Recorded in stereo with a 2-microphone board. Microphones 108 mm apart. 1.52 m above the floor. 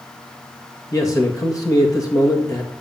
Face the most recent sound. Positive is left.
turn(degrees=35)  # may be behind; listen again after turning